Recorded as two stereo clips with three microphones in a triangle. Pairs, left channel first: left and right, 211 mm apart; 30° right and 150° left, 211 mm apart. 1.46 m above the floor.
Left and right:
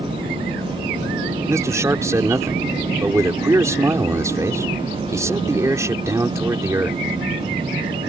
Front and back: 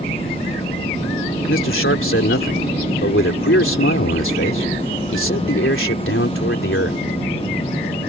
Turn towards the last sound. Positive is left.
turn(degrees=-15)